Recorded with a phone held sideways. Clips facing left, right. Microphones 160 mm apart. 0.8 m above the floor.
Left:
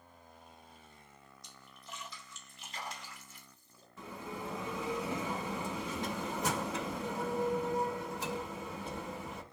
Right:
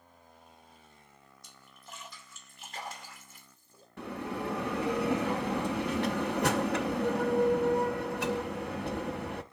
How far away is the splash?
About 2.5 m.